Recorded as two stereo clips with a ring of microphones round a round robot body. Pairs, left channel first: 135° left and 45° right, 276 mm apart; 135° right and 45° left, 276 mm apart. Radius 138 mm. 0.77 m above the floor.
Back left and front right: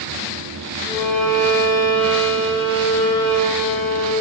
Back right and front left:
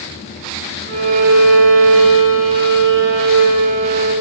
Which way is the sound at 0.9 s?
60° left.